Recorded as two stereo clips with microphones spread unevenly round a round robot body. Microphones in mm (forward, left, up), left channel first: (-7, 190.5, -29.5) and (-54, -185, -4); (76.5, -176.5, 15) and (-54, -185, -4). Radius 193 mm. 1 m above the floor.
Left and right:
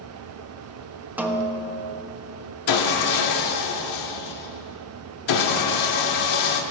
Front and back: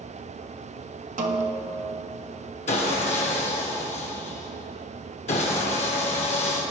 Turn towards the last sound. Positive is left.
turn(degrees=40)